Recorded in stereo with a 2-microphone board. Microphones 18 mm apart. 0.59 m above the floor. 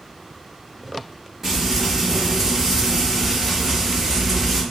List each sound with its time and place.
1.4 s frying: 15° right (ahead or behind), 1.3 m